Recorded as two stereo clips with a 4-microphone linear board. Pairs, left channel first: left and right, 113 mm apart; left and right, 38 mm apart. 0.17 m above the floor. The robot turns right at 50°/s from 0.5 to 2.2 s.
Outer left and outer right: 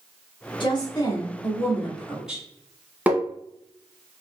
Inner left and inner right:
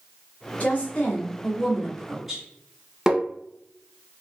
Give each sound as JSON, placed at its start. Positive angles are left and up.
{"t": 0.6, "sound": "a woman speaking", "azimuth_deg": 110, "distance_m": 1.9}
{"t": 3.1, "sound": "tapping", "side_deg": -15, "distance_m": 1.0}